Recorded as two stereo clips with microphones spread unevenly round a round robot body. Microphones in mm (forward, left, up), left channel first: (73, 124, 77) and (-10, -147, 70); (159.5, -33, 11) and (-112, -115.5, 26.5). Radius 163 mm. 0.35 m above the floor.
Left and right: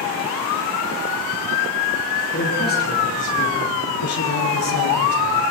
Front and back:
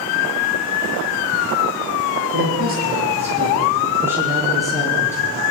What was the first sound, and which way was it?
A man speaking, 135° left.